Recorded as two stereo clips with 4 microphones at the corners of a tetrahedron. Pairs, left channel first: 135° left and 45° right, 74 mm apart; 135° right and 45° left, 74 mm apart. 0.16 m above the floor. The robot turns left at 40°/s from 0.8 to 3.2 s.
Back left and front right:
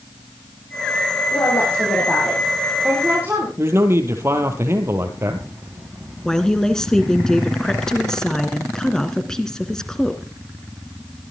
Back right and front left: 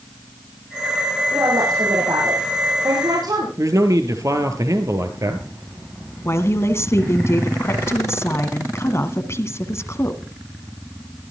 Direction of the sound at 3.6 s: 5° left.